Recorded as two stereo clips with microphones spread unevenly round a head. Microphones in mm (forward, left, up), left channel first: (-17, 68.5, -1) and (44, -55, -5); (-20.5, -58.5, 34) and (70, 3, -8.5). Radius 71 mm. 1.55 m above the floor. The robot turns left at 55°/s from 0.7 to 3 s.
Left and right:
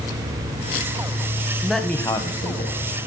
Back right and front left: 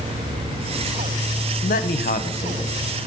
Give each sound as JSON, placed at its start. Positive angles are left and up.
{"t": 1.6, "sound": "a man speaking", "azimuth_deg": -150, "distance_m": 1.0}